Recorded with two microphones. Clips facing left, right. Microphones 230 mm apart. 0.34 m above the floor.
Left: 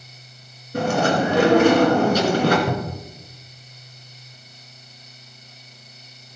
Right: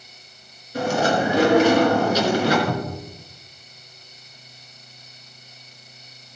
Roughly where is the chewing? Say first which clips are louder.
Left 1 dB; left.